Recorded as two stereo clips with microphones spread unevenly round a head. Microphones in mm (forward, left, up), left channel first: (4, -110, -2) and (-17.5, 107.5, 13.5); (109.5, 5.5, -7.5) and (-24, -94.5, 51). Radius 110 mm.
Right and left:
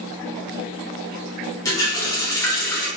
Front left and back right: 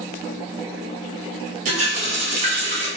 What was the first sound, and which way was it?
A running tap, 160° right.